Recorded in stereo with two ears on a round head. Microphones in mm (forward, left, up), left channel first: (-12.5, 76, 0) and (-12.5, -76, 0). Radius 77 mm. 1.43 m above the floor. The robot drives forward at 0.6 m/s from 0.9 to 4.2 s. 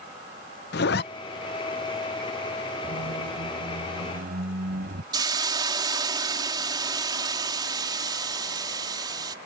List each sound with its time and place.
0.7 s a zipper: 70° left (ahead or behind); by 1.0 s 65° left (ahead or behind)
2.8 s a squeak: 60° right (ahead or behind)
5.1 s a hiss: 25° right (ahead or behind)